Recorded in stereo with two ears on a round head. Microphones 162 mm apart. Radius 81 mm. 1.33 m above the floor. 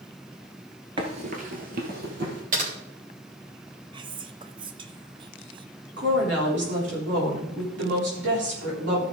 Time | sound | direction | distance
1.0 | running footsteps | 30° right (ahead or behind) | 1.5 m
2.5 | typing on a keyboard | 45° right (ahead or behind) | 2.5 m
3.9 | whispering | 25° right (ahead or behind) | 0.8 m
6.0 | a woman speaking | 70° right (ahead or behind) | 3.5 m